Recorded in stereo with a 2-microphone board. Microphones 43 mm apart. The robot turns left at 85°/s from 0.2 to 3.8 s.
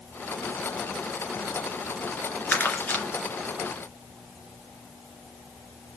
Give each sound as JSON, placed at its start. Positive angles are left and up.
{"t": 2.5, "sound": "crumpling", "side_deg": 50, "distance_m": 2.5}